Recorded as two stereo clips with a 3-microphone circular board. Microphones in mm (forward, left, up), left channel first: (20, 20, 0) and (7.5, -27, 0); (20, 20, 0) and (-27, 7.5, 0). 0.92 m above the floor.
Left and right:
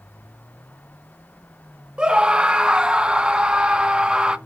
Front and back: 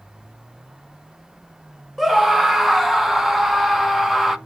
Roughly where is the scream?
Right.